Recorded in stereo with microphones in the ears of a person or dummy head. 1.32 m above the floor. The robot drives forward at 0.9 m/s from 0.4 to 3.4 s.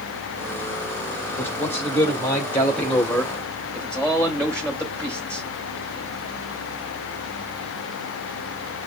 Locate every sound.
1.4 s a man speaking: 15° left (ahead or behind), 2.5 m; by 5.5 s 10° left (ahead or behind), 4.5 m